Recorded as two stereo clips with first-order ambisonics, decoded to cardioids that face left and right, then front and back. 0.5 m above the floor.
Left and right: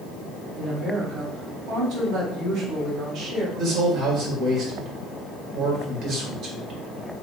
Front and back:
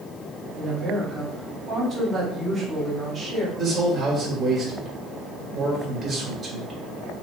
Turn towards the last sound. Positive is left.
turn(degrees=-110)